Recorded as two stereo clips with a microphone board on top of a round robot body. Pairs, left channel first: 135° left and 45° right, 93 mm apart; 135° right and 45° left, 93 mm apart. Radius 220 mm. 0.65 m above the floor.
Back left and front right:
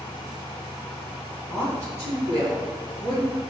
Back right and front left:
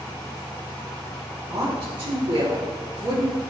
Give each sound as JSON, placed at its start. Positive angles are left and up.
{"t": 1.5, "sound": "a woman speaking", "azimuth_deg": 10, "distance_m": 3.5}